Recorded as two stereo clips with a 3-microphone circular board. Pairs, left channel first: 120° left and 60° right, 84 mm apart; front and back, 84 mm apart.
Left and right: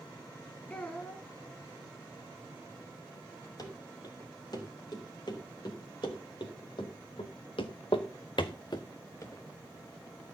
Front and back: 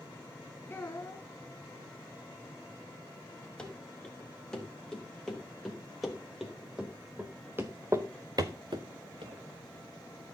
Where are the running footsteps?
80° left, 5 m; by 10.3 s 155° right, 2.0 m.